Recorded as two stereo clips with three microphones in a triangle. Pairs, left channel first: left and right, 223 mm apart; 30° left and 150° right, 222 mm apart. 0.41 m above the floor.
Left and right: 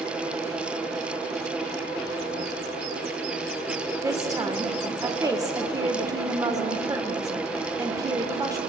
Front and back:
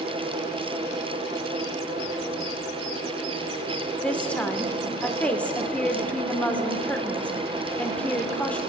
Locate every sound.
4.0 s a woman speaking: 45° right, 0.8 m